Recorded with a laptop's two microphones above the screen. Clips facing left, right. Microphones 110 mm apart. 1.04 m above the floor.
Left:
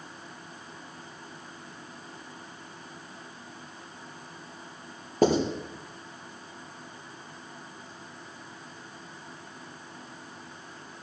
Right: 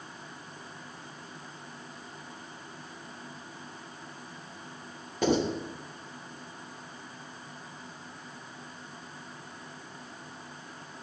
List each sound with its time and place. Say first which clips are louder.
5.2 s writing: left 4 dB; 45° left (ahead or behind), 5.5 m